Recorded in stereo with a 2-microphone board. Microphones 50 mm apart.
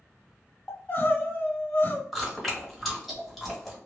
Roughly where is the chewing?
Centre.